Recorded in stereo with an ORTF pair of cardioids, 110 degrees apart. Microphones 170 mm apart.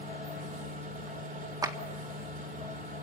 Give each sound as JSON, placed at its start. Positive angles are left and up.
{"t": 0.0, "sound": "a machine running", "azimuth_deg": -50, "distance_m": 6.0}
{"t": 1.6, "sound": "a clap", "azimuth_deg": -20, "distance_m": 1.8}